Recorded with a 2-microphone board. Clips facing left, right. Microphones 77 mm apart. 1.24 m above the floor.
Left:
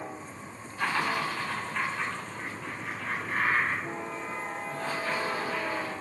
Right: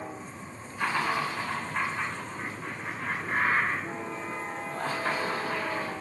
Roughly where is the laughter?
Centre.